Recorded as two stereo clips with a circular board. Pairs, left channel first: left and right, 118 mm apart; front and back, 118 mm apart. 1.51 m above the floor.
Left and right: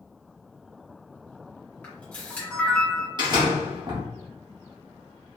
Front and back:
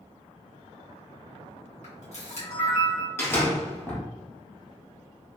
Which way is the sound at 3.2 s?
60° right.